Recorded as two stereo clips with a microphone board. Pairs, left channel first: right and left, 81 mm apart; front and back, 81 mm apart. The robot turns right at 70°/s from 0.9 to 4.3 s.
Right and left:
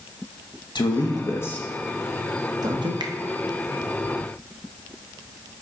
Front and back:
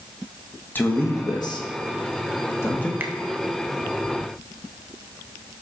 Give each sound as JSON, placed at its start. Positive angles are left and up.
{"t": 0.8, "sound": "a man speaking", "azimuth_deg": -65, "distance_m": 1.2}
{"t": 3.0, "sound": "a finger snap", "azimuth_deg": 115, "distance_m": 0.7}